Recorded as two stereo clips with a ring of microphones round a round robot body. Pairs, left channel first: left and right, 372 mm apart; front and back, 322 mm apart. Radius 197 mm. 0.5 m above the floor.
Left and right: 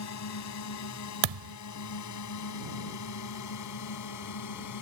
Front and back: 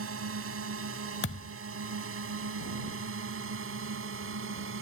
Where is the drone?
135° left; by 4.8 s 130° left.